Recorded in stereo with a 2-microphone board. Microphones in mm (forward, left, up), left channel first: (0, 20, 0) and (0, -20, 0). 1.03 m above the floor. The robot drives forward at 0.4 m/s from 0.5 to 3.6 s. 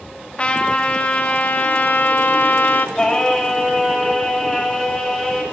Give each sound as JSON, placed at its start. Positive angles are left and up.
{"t": 0.4, "sound": "a trumpet", "side_deg": 30, "distance_m": 1.2}
{"t": 3.0, "sound": "singing", "side_deg": 15, "distance_m": 2.5}